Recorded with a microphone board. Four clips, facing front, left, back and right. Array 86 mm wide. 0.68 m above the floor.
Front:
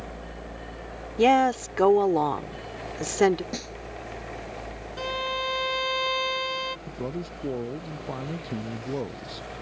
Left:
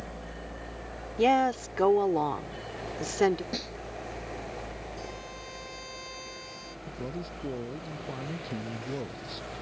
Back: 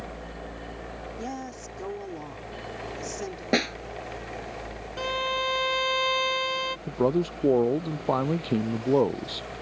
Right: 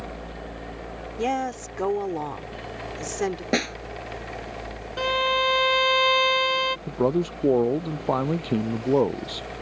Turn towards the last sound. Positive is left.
turn(degrees=-125)